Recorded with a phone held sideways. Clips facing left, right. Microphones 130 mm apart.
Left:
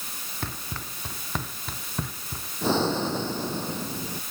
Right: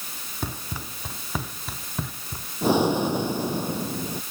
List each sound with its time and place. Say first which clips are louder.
0.4 s running footsteps: right 3 dB; 15° right (ahead or behind); by 2.5 s centre (ahead or behind)
2.6 s breathing: right 4 dB; 15° right (ahead or behind)